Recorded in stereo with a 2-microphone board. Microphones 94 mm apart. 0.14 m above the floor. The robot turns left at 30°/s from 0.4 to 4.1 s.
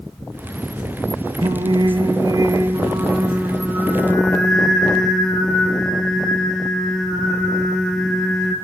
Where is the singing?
105° right, 0.7 m; by 8.6 s 175° left, 0.7 m.